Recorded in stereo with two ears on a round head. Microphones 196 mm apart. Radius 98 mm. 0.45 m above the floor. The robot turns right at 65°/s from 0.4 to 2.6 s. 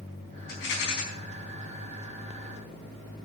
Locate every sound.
0.5 s a rattle: 50° left, 4.5 m; by 1.0 s 85° left, 4.5 m